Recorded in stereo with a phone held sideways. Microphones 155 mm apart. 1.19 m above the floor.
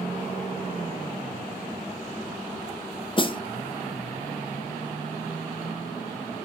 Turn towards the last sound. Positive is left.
turn(degrees=35)  # may be behind; listen again after turning